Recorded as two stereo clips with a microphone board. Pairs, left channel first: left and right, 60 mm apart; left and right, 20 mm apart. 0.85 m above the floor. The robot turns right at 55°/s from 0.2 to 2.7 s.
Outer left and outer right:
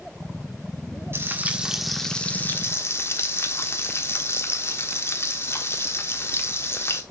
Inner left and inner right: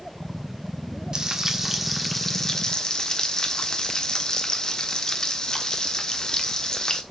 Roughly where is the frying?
Ahead right.